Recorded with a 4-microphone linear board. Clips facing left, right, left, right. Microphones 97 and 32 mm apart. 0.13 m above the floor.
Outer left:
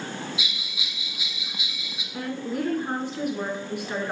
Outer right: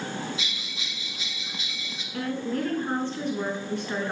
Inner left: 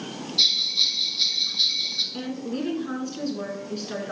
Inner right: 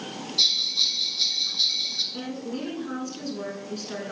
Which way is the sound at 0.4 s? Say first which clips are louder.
Even, inner left 1 dB; 10° left (ahead or behind).